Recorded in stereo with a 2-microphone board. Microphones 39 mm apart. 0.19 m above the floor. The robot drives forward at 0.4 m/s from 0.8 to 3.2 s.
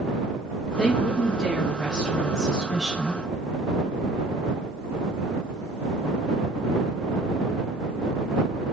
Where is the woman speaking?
15° left (ahead or behind), 1.2 m; by 3.2 s 10° left (ahead or behind), 1.9 m.